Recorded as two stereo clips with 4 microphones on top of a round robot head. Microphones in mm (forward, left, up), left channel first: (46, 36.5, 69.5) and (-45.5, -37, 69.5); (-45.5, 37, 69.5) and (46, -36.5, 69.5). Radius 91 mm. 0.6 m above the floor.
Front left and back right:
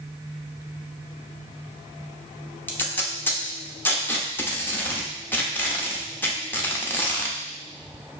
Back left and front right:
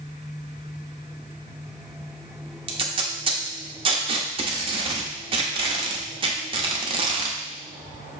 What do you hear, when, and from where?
2.7 s tape being pulled: 30° right, 0.9 m